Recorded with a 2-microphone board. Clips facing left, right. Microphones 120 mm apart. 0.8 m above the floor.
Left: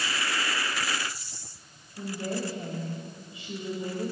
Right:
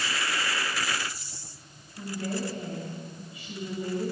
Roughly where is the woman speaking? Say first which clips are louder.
Even; left.